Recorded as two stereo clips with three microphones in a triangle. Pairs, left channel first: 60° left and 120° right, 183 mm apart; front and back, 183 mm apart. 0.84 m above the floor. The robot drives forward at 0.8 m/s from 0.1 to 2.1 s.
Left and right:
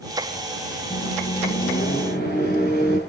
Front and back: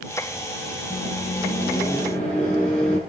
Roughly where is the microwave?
Ahead left.